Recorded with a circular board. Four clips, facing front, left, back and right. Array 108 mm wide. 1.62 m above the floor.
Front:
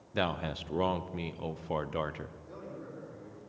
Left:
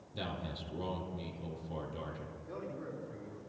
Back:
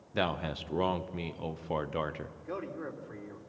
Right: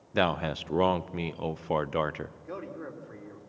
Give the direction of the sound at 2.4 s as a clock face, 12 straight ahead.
5 o'clock.